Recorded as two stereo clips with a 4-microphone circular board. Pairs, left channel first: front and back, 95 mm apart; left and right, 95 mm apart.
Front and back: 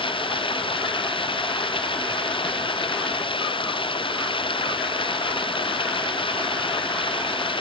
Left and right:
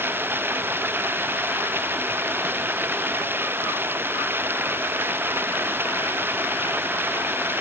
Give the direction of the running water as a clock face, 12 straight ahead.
1 o'clock.